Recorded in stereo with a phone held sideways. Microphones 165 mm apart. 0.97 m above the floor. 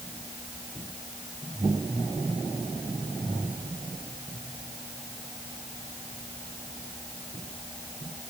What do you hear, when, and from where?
Only background noise.